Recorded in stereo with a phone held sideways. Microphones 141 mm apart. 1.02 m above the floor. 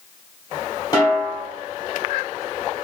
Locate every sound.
0.9 s a snare drum: 20° left (ahead or behind), 1.0 m